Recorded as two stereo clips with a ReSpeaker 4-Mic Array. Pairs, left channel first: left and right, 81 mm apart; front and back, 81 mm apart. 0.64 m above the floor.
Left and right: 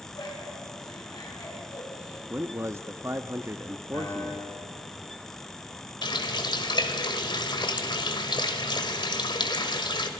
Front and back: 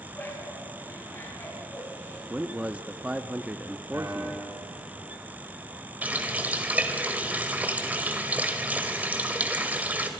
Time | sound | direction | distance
0.1 | laughter | 65° left | 7.5 m
2.3 | a man speaking | 115° right | 0.7 m
3.9 | a piano | 130° left | 3 m
6.0 | a running tap | 110° left | 1.6 m